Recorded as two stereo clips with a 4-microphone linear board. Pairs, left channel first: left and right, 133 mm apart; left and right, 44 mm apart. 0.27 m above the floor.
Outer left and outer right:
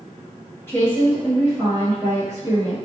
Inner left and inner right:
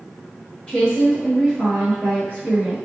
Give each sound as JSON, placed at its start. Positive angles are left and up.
{"t": 0.7, "sound": "a woman speaking", "side_deg": 15, "distance_m": 1.6}